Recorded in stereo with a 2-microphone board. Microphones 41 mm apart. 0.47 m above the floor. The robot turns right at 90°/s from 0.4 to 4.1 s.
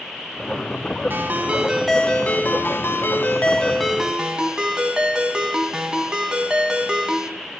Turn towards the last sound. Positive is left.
turn(degrees=-160)